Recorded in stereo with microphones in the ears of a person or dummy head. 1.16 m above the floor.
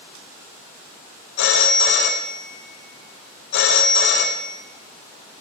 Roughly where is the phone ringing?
Left.